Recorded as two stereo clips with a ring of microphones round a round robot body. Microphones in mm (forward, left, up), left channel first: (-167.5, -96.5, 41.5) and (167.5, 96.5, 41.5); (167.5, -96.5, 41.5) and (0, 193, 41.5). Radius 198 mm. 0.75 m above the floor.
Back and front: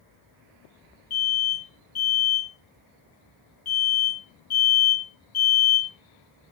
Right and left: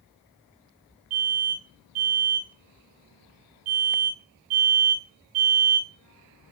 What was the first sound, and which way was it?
An alarm, 155° left.